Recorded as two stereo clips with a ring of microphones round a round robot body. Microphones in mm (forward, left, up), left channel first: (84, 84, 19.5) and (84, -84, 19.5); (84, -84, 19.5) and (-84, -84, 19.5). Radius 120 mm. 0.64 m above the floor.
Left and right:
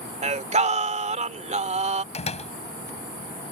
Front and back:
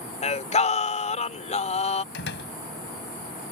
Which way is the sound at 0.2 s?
45° right.